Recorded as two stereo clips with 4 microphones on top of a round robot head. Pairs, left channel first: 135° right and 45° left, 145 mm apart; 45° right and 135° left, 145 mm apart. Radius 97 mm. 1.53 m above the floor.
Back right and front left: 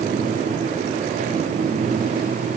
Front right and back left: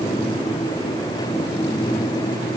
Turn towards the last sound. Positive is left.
No sound to turn to.